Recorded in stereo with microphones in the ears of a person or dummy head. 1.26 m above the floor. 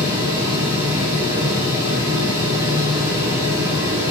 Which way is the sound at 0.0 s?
25° right (ahead or behind).